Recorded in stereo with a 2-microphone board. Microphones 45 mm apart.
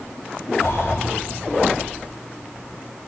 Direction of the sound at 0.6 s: 65° left (ahead or behind).